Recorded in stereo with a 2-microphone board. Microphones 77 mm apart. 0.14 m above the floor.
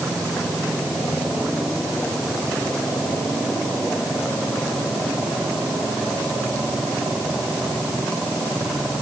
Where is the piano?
No piano in this recording.